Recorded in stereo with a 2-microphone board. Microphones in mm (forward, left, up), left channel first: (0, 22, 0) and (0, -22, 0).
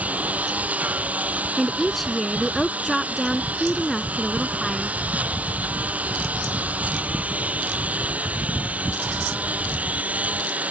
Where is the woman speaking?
Centre (ahead or behind).